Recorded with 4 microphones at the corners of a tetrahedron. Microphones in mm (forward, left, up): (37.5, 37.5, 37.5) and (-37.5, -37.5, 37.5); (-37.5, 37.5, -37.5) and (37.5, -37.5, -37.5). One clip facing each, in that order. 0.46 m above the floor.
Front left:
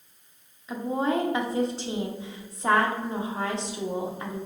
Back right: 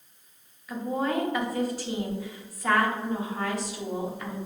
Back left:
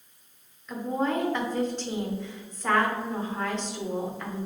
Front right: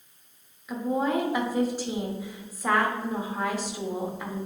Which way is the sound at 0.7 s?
20° left.